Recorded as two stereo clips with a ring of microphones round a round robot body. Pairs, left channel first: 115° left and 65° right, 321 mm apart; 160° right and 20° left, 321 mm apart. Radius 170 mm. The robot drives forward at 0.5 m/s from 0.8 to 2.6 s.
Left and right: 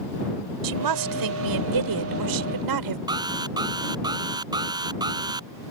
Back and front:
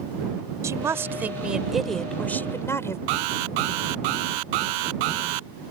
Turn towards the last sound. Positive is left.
turn(degrees=10)